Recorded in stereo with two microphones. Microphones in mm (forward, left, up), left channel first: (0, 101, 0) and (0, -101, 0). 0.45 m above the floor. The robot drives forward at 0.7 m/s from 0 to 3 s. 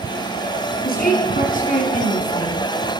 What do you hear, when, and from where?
0.8 s a woman speaking: 50° left (ahead or behind), 4 m; by 2.6 s 35° left (ahead or behind), 5 m